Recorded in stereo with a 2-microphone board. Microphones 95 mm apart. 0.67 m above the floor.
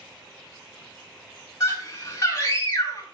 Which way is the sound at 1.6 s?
35° left (ahead or behind).